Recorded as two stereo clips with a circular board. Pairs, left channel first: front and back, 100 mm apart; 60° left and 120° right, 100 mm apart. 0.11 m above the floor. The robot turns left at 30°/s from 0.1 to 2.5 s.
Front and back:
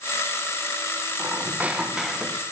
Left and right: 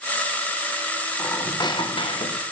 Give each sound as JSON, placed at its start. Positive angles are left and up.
{"t": 1.2, "sound": "a squeak", "azimuth_deg": 120, "distance_m": 2.0}